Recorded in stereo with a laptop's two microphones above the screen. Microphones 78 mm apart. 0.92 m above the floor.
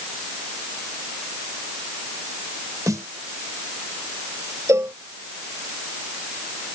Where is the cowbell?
40° right (ahead or behind).